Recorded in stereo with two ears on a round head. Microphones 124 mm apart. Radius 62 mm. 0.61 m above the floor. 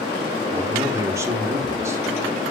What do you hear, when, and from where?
0.5 s a man speaking: 20° right (ahead or behind), 1.4 m